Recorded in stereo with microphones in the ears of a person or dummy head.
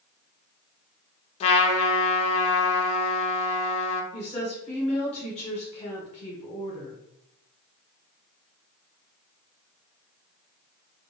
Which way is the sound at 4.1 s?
35° left (ahead or behind).